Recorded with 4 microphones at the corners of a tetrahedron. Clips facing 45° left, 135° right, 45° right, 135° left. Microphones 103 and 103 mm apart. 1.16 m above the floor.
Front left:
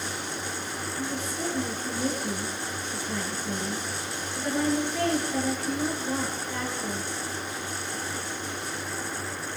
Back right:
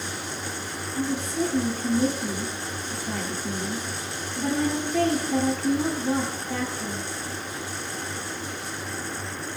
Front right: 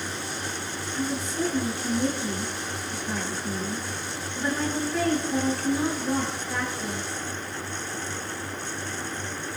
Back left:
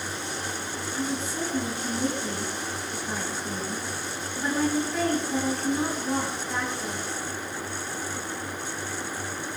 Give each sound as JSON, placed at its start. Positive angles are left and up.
{"t": 0.9, "sound": "a woman speaking", "azimuth_deg": -140, "distance_m": 7.0}